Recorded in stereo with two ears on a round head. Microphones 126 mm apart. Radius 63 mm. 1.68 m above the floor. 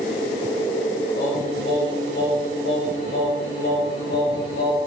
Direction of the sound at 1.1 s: 80° left.